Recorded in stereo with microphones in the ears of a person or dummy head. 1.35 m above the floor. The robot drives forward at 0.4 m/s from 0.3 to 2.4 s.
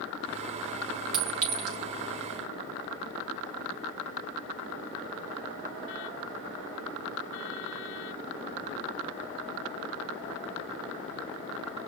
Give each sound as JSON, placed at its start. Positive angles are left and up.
{"t": 1.1, "sound": "a clink", "side_deg": -45, "distance_m": 0.9}